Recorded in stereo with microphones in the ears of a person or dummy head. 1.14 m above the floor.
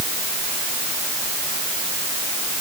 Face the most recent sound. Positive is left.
No sound to turn to.